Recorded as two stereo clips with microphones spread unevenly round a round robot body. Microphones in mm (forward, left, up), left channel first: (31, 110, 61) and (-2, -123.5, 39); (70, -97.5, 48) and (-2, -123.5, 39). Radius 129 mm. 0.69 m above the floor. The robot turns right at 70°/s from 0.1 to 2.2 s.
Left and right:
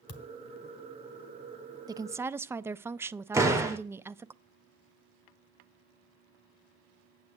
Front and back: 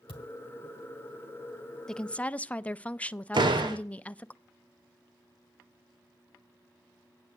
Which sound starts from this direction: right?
A woman speaking, at 1.9 s.